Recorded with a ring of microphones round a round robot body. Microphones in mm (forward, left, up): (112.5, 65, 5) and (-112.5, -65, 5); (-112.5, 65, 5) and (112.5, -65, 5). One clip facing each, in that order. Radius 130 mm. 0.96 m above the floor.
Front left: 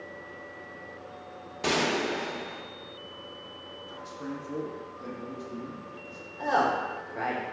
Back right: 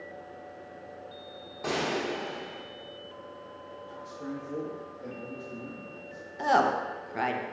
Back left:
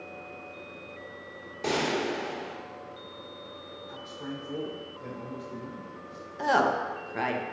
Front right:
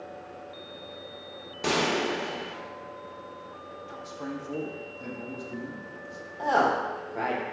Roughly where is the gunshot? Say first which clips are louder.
Front left 3 dB, front right 1 dB; ahead left.